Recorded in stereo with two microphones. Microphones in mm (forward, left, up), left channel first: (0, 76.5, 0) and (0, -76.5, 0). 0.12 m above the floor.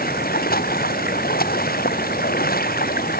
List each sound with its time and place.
0.0 s running water: 75° left (ahead or behind)